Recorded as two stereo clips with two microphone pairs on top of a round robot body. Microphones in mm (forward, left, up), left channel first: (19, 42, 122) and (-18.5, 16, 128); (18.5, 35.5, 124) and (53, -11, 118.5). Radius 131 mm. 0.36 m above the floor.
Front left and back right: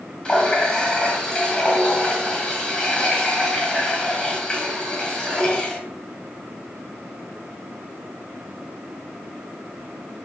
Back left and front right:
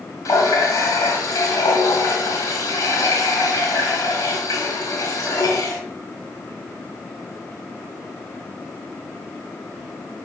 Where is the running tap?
105° left, 3.5 m.